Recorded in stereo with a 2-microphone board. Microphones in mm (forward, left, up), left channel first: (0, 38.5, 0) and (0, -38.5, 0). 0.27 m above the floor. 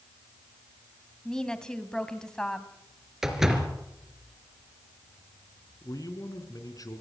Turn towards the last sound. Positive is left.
turn(degrees=50)  # may be behind; listen again after turning